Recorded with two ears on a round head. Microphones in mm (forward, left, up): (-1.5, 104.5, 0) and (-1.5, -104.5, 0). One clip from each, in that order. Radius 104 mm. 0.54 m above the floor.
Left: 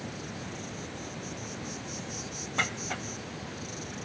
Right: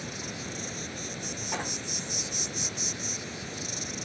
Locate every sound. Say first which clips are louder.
0.0 s an insect: right 3 dB; 45° right (ahead or behind)